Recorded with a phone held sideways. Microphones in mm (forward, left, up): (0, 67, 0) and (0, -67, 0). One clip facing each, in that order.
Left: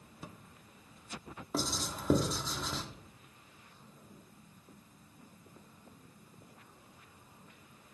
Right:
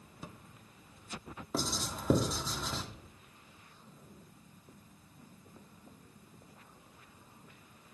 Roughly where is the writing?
Centre.